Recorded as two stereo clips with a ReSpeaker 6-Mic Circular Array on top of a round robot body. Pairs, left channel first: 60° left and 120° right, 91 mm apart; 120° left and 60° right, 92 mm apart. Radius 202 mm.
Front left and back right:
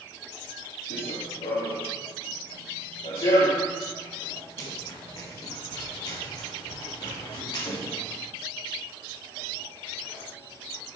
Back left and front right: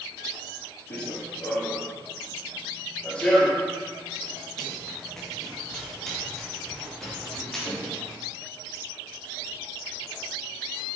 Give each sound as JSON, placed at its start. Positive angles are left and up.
{"t": 0.9, "sound": "running footsteps", "azimuth_deg": 65, "distance_m": 1.8}